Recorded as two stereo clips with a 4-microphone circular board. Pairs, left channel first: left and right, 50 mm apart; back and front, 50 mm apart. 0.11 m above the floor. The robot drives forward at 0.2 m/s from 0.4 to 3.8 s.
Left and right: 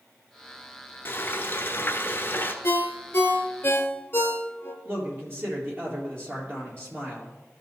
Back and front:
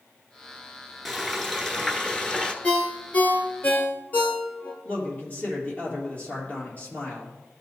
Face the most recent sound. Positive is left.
turn(degrees=-125)